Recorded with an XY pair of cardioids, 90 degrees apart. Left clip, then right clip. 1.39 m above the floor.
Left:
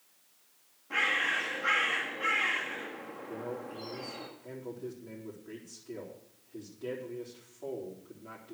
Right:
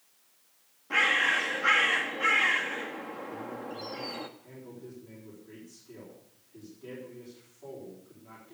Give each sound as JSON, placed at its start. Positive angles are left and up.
{"t": 0.9, "sound": "a bird", "azimuth_deg": -45, "distance_m": 1.6}
{"t": 3.3, "sound": "a man speaking", "azimuth_deg": 65, "distance_m": 4.0}